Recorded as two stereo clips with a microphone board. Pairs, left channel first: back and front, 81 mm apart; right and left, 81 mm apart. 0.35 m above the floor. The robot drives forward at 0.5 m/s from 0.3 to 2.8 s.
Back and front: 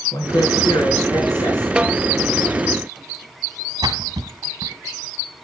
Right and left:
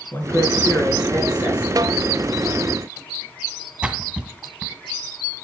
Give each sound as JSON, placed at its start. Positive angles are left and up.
{"t": 0.1, "sound": "a man speaking", "azimuth_deg": -150, "distance_m": 5.5}
{"t": 1.8, "sound": "a snare drum", "azimuth_deg": 75, "distance_m": 0.6}
{"t": 3.8, "sound": "a splash", "azimuth_deg": 10, "distance_m": 1.5}